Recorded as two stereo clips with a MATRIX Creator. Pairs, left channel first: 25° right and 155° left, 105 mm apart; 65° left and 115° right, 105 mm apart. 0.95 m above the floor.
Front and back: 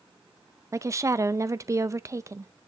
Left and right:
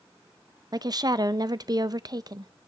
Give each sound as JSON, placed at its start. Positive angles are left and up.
{"t": 0.7, "sound": "a woman speaking", "azimuth_deg": -150, "distance_m": 0.5}